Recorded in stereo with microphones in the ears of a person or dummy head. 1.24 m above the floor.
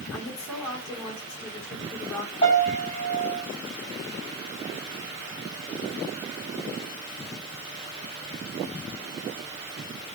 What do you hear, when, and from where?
0.1 s a woman speaking: 15° left (ahead or behind), 3 m
2.4 s a piano: 30° left (ahead or behind), 7 m